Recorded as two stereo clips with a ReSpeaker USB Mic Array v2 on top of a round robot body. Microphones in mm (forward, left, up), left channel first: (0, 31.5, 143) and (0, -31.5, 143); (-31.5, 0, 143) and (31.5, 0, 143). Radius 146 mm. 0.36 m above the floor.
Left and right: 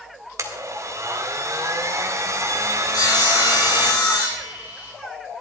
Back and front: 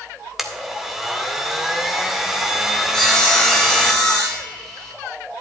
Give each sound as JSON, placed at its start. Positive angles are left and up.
{"t": 0.4, "sound": "a blender", "azimuth_deg": -85, "distance_m": 2.0}
{"t": 2.9, "sound": "sawing", "azimuth_deg": 100, "distance_m": 5.0}